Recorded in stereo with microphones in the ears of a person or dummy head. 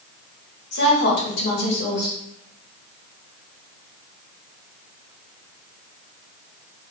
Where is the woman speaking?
55° left (ahead or behind), 1.7 m.